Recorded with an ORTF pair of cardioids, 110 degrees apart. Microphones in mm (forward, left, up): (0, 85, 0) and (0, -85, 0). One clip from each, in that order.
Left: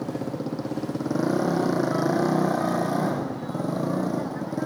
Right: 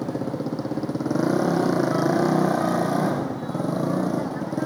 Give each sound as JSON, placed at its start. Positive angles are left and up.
{"t": 0.0, "sound": "a motorcycle", "azimuth_deg": -15}